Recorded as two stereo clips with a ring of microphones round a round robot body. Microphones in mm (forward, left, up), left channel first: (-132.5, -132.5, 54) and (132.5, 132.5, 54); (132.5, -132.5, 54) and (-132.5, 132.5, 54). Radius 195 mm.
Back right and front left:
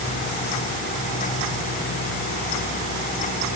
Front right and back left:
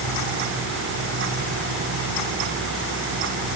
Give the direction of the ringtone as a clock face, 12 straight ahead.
I don't hear a ringtone.